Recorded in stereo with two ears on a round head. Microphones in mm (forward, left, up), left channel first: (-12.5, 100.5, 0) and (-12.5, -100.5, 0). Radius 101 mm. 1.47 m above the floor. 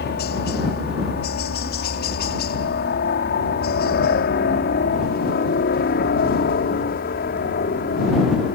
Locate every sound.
0.0 s a helicopter: 50° left (ahead or behind); by 8.6 s 45° left (ahead or behind)